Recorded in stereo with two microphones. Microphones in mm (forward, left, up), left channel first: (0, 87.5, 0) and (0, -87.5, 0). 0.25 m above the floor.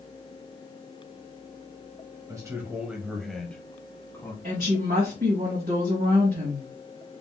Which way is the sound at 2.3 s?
20° right (ahead or behind).